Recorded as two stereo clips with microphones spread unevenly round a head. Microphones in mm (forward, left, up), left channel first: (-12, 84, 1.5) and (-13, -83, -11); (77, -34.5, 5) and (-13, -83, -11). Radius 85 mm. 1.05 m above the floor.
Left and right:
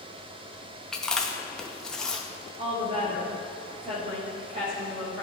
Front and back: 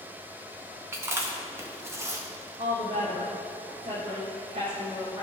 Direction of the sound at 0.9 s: Straight behind.